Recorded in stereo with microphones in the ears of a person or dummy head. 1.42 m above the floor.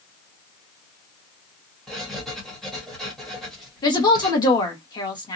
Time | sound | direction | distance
1.9 | writing | 5° left (ahead or behind) | 1.0 m
3.8 | a woman speaking | 25° left (ahead or behind) | 1.2 m